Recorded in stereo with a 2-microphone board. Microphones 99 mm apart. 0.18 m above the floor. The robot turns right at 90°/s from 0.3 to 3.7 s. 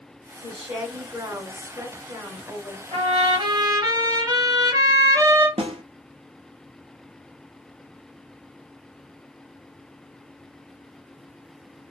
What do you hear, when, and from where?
0.4 s a woman speaking: 175° left, 1.9 m; by 2.8 s 30° left, 1.9 m
2.9 s a trumpet: 105° right, 1.1 m; by 5.5 s 35° right, 1.1 m
5.6 s a snare drum: 85° right, 0.7 m